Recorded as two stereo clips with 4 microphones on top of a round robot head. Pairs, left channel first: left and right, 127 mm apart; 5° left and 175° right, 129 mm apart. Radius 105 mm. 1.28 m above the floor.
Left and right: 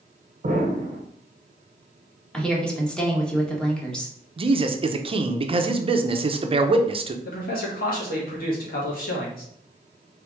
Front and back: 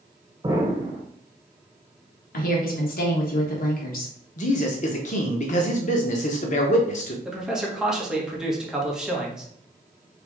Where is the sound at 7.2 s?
100° left, 1.6 m.